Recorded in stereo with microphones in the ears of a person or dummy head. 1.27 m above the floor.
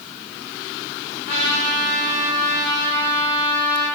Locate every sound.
1.3 s a trumpet: 50° left (ahead or behind), 4 m